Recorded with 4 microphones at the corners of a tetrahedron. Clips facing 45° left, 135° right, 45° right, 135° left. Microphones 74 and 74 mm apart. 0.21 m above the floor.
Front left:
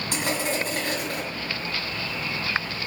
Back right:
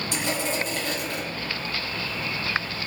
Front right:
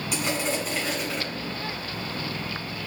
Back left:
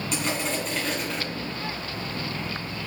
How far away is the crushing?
About 1.6 m.